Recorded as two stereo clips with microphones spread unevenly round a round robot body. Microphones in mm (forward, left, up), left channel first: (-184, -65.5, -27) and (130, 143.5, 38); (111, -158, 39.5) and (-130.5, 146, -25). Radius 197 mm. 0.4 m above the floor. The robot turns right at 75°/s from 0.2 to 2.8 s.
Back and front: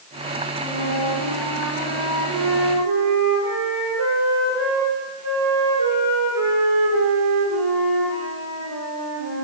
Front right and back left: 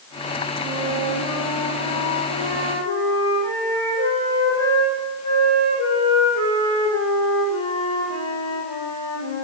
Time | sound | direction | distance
0.6 | a flute | 175° right | 8.5 m